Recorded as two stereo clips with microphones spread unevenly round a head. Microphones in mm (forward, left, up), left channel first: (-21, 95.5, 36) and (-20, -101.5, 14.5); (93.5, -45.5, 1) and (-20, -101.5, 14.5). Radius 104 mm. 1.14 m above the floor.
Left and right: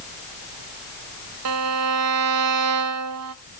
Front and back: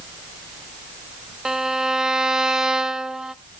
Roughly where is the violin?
Right.